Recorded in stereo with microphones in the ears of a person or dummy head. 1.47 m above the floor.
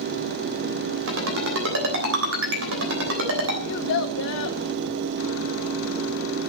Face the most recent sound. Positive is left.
turn(degrees=70)  # may be behind; listen again after turning